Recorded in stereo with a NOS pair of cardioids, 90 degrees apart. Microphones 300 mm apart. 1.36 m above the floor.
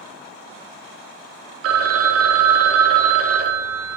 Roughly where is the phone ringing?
Ahead right.